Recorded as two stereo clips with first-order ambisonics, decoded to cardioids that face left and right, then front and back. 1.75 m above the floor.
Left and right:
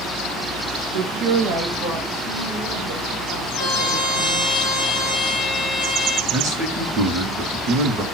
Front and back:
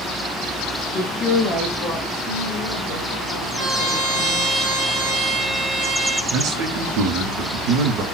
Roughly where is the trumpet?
Left.